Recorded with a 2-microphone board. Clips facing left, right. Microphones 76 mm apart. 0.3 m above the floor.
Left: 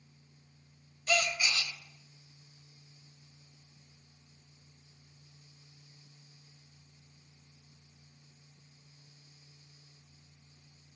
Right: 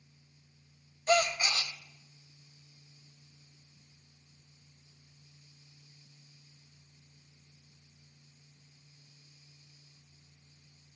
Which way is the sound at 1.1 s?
35° right (ahead or behind).